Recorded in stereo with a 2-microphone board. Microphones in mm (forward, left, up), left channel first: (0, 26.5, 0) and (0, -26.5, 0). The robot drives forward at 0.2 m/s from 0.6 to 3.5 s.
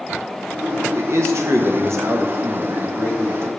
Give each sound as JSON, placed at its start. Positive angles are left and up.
{"t": 0.9, "sound": "a man speaking", "side_deg": -60, "distance_m": 1.0}